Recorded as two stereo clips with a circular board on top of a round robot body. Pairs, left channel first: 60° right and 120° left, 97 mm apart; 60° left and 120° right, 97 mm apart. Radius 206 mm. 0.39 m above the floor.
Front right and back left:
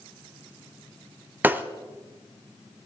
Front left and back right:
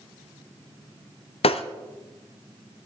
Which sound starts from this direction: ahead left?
Breaking glass, at 1.4 s.